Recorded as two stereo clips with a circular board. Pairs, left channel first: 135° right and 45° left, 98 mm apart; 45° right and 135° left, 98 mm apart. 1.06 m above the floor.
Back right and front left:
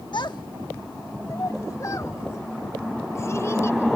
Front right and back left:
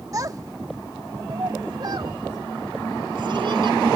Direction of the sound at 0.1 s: 170° right.